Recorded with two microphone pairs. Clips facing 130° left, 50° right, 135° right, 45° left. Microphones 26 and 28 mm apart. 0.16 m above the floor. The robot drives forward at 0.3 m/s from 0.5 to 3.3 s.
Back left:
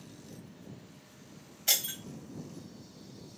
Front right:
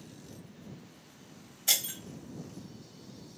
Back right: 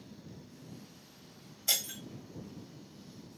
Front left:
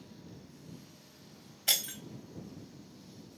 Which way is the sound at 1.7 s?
55° left.